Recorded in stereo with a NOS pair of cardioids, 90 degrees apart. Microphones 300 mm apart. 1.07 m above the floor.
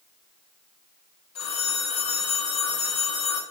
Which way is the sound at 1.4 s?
60° left.